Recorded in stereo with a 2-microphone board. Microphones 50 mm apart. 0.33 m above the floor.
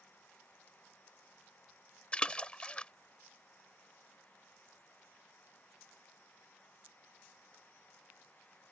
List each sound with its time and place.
2.1 s a splash: 20° left (ahead or behind)